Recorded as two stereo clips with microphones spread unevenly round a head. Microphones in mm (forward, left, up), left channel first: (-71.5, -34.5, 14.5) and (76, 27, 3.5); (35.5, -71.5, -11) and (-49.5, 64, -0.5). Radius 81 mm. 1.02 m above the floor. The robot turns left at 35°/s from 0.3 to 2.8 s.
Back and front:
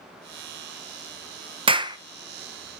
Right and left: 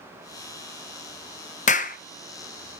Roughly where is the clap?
Ahead right.